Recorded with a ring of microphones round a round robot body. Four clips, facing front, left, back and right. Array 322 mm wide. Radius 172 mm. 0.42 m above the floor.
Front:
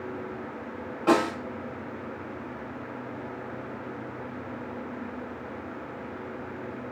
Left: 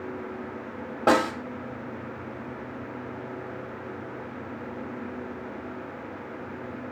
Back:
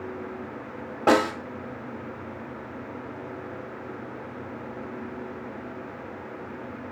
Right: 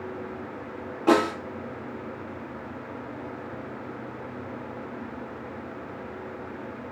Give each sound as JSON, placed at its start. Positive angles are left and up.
{"t": 1.1, "sound": "a snare drum", "azimuth_deg": 125, "distance_m": 0.8}